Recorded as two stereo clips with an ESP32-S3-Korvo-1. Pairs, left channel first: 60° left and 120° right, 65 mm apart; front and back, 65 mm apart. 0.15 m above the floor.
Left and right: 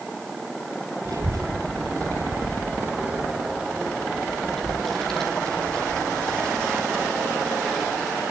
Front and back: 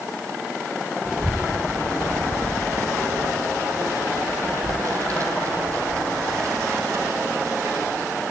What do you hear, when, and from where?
1.1 s a child speaking: 100° right, 1.7 m; by 8.2 s 135° left, 5.5 m